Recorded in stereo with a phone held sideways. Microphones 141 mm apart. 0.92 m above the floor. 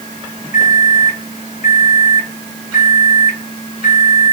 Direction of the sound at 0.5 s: 75° left (ahead or behind).